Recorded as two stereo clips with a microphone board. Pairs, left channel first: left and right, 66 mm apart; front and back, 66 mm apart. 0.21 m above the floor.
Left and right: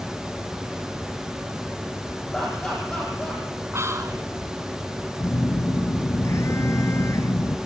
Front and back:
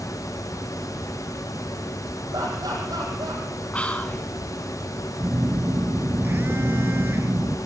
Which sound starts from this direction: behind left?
A phone buzzing, at 5.2 s.